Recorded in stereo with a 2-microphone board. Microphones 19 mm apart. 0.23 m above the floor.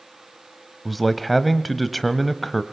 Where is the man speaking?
Centre (ahead or behind), 1.0 m.